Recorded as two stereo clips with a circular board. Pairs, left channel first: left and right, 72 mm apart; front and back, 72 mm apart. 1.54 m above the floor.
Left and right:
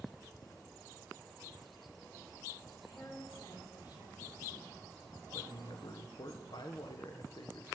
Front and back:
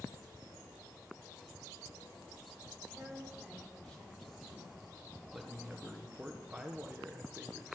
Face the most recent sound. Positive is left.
turn(degrees=100)